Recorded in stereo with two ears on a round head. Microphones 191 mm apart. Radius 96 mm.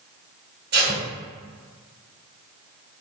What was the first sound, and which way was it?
Tape being pulled, 55° right (ahead or behind).